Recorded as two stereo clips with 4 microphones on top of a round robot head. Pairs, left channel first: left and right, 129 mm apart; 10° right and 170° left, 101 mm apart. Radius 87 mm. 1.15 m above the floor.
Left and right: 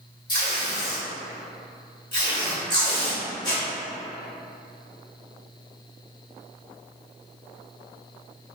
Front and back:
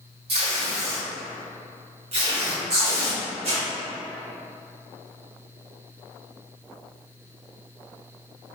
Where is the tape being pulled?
145° left, 1.9 m.